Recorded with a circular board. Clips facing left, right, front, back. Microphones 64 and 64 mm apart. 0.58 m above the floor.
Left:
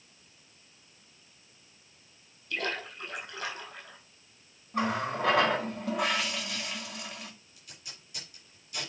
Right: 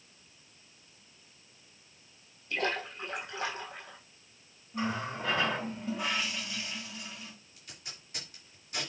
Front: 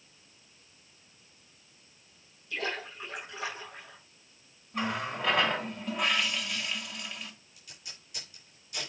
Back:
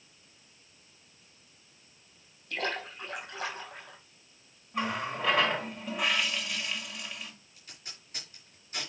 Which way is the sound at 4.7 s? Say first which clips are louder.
Left 4 dB, even; 90° left.